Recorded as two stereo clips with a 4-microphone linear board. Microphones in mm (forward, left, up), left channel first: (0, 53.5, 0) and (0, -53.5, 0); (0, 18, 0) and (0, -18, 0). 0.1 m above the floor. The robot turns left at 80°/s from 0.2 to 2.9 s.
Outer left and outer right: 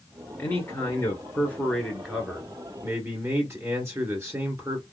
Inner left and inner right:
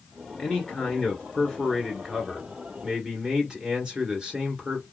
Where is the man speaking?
20° left (ahead or behind), 1.6 m; by 4.8 s 25° right (ahead or behind), 1.6 m.